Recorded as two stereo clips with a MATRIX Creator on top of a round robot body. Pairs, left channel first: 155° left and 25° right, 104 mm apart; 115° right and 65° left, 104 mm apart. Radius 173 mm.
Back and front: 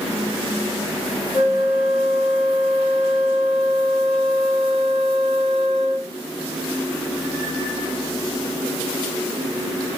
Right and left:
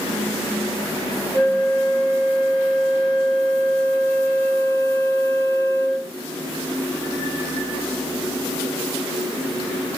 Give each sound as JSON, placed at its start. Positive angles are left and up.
{"t": 1.3, "sound": "a flute", "azimuth_deg": 130, "distance_m": 0.8}